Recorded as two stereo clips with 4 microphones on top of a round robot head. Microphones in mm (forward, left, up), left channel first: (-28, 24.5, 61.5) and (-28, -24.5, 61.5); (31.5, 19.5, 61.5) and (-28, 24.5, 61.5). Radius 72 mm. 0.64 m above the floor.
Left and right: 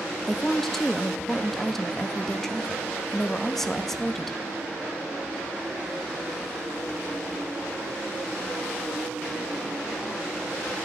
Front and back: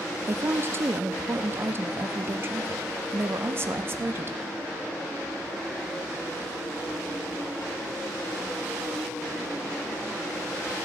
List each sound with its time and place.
0.3 s a woman speaking: 170° left, 0.6 m